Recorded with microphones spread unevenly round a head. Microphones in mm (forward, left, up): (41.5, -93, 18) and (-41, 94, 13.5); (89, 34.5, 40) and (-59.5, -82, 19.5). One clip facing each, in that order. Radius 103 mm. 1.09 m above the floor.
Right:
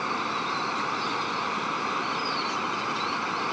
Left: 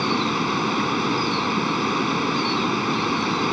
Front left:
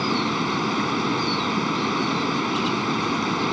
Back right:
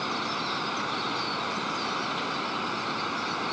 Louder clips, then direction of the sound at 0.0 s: Left 10 dB, front left 10 dB; 75° left.